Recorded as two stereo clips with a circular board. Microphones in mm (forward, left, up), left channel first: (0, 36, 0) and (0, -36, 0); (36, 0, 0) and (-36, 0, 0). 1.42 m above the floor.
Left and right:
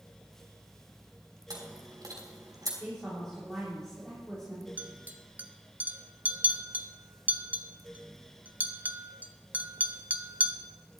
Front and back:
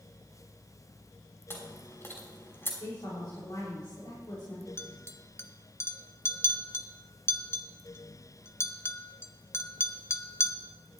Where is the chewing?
55° right, 3 m.